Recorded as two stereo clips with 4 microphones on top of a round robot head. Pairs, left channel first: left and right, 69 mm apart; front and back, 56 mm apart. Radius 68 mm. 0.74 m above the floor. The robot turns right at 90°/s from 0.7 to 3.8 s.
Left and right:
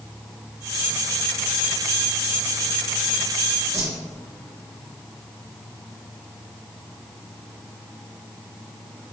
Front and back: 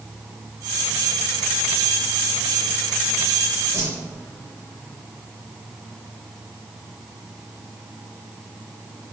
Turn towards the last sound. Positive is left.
turn(degrees=-130)